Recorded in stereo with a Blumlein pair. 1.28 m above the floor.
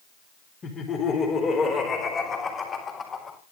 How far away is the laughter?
About 4.5 m.